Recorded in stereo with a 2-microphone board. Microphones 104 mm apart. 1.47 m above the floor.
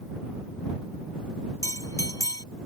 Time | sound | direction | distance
1.6 | a bell | 35° left (ahead or behind) | ?